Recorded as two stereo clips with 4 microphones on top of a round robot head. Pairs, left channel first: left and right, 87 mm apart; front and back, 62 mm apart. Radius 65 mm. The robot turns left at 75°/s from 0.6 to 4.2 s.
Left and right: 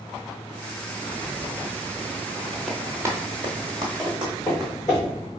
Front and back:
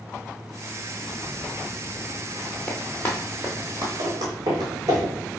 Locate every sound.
2.7 s running footsteps: straight ahead, 0.8 m; by 5.0 s straight behind, 1.5 m
4.0 s footsteps: 175° right, 1.5 m; by 5.1 s 150° left, 2.5 m